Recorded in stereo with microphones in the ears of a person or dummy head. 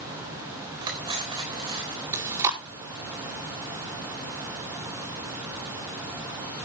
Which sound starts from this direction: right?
Cutlery clinking, at 0.8 s.